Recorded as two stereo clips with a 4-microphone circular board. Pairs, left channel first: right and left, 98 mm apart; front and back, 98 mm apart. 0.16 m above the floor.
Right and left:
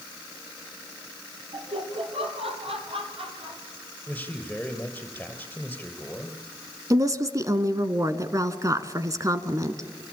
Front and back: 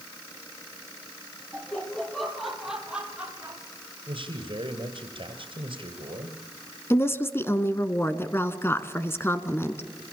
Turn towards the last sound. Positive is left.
turn(degrees=55)